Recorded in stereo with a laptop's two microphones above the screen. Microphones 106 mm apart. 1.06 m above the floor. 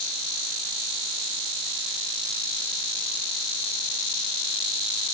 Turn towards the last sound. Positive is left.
No sound to turn to.